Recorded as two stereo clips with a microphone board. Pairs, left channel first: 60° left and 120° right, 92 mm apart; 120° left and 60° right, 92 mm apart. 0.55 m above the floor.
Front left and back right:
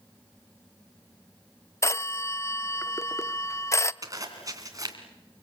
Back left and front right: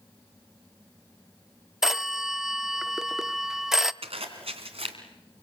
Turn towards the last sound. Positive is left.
turn(degrees=-65)